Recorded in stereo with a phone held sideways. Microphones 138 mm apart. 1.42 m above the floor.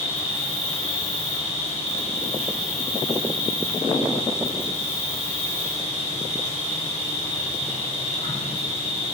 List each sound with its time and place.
0.0 s an insect: 50° left (ahead or behind), 6.5 m